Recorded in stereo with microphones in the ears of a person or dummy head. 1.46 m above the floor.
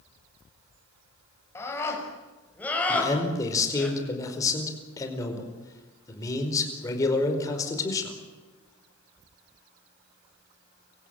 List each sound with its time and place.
1.6 s a scream: 15° left (ahead or behind), 7 m; by 3.9 s 5° left (ahead or behind), 6.5 m
2.9 s a man speaking: 20° left (ahead or behind), 5 m